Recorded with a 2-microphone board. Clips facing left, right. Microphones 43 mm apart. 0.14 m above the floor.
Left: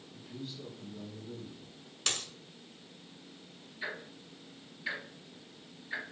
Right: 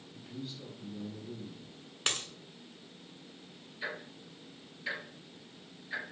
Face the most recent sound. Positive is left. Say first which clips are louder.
# even
turn(degrees=5)  # may be behind; listen again after turning